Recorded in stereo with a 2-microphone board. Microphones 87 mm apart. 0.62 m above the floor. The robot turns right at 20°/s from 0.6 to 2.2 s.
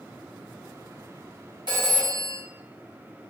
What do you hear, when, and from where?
1.7 s a phone ringing: 60° right (ahead or behind), 1.4 m; by 2.4 s 65° right (ahead or behind), 1.4 m